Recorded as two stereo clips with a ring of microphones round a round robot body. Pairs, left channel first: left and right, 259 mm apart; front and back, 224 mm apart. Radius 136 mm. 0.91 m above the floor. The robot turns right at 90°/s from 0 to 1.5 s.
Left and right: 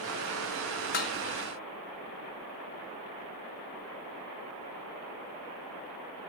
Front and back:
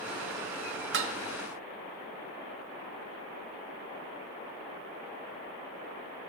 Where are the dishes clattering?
145° left, 1.0 m; by 1.2 s 165° left, 1.0 m.